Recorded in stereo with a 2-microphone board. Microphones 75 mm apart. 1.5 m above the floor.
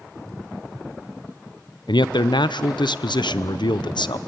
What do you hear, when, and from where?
1.9 s a man speaking: 85° left, 0.7 m